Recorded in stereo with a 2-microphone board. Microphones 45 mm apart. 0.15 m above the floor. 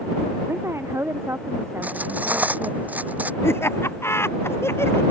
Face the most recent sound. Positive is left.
turn(degrees=65)  # may be behind; listen again after turning